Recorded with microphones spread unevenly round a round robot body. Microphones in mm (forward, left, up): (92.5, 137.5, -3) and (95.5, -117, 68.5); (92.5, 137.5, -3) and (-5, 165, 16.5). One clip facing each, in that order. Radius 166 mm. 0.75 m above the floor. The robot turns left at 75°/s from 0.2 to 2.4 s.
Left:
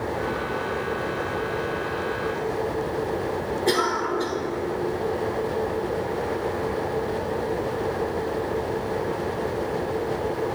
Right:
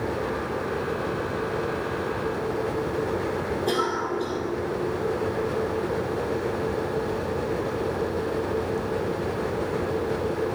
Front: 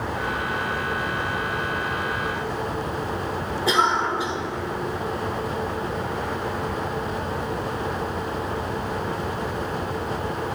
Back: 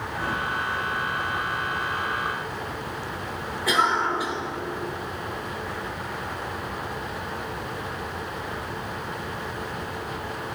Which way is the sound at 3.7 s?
40° left.